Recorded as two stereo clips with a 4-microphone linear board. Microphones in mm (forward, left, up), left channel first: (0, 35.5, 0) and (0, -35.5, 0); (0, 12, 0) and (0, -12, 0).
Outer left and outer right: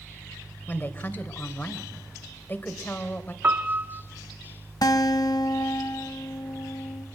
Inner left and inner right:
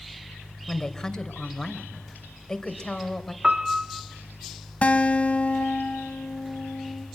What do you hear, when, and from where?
0.7 s a woman speaking: 30° left (ahead or behind), 3 m
3.4 s a piano: 30° right (ahead or behind), 1.3 m
4.8 s a guitar: 70° left (ahead or behind), 1.7 m